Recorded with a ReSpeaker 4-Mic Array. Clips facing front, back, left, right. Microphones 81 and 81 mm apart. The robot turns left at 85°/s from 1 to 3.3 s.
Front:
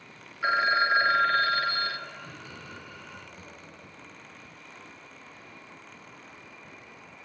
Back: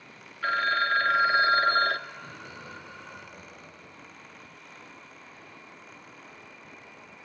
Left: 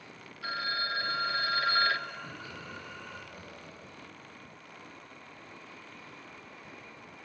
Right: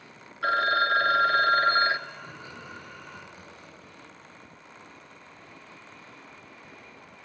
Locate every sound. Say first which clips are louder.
0.4 s a phone ringing: front 2 dB, right 11 dB; 75° right, 0.8 m; by 2.0 s 160° right, 0.8 m
2.1 s laughter: back 1 dB, even; 120° right, 9.5 m; by 4.1 s 140° left, 9.5 m